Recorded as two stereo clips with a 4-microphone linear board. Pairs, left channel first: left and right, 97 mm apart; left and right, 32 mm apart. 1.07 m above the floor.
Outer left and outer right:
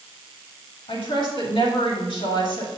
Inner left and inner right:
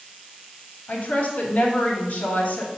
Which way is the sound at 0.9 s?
65° left (ahead or behind).